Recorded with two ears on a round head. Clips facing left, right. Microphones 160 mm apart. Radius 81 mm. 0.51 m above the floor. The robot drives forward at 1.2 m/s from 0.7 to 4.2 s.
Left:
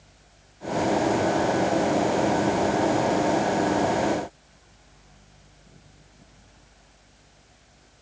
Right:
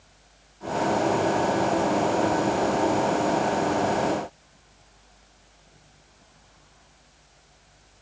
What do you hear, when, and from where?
Only background noise.